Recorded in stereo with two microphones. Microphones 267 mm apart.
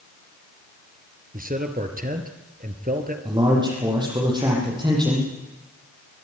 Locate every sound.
1.3 s a man speaking: 30° right (ahead or behind), 3 m
3.2 s a man speaking: 15° right (ahead or behind), 8.5 m